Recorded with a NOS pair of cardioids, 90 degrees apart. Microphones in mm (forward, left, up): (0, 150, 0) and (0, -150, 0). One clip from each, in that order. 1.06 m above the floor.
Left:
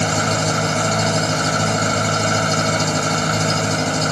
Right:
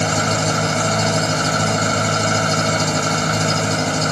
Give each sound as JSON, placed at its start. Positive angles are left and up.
{"t": 0.0, "sound": "an engine running", "azimuth_deg": -5}